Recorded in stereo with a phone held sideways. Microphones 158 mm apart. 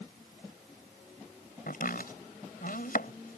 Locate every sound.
1.7 s chopping: 65° left (ahead or behind)